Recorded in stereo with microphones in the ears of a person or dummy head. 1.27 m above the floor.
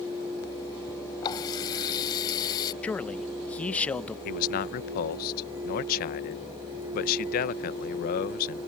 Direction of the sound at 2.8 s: 10° left (ahead or behind).